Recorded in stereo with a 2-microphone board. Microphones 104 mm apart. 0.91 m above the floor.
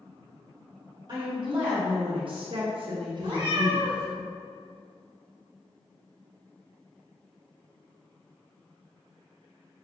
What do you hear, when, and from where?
1.1 s a woman speaking: 50° right (ahead or behind), 1.4 m; by 4.2 s centre (ahead or behind), 0.7 m
3.2 s a cat meowing: 45° right (ahead or behind), 1.6 m